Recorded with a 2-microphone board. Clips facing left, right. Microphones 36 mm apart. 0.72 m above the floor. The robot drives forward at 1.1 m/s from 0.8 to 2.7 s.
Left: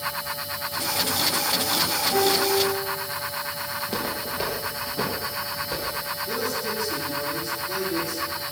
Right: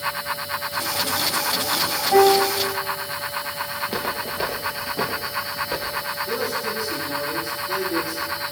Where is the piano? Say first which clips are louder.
Right 8 dB; 55° right (ahead or behind), 4 m; by 2.6 s 60° right (ahead or behind), 4 m.